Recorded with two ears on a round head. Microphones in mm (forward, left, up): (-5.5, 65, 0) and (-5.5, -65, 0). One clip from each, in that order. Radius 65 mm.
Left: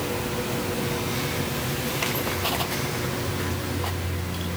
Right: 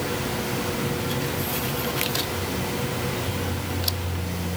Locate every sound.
Only background noise.